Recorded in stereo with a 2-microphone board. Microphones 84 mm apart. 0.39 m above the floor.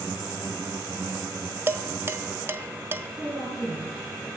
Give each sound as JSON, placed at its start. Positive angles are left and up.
{"t": 1.7, "sound": "dishes clattering", "side_deg": -30, "distance_m": 0.6}
{"t": 3.2, "sound": "a woman speaking", "side_deg": 5, "distance_m": 5.0}